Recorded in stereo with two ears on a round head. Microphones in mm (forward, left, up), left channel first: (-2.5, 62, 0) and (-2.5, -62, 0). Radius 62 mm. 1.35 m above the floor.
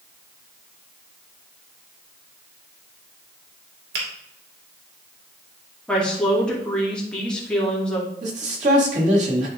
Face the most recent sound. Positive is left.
turn(degrees=-55)  # may be behind; listen again after turning